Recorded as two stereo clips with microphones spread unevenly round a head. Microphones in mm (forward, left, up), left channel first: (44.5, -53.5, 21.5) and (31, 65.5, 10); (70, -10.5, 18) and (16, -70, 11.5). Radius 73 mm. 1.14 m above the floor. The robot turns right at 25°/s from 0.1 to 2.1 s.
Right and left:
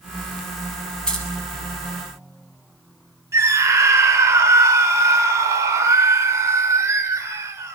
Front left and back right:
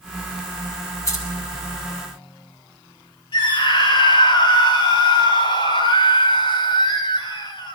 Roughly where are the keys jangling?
Ahead.